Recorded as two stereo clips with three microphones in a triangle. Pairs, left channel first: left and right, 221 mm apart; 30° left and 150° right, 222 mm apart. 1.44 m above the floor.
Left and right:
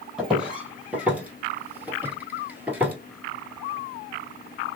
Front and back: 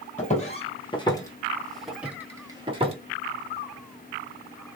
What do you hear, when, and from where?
0.2 s footsteps: 5° right, 1.9 m; by 3.0 s 165° right, 1.6 m